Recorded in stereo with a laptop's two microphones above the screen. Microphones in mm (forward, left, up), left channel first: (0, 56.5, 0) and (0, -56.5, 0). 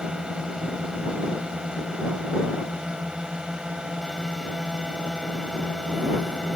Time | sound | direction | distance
0.0 | a drone | 10° right (ahead or behind) | ?